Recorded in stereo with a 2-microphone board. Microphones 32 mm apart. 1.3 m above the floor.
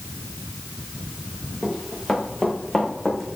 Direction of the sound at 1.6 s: 5° left (ahead or behind).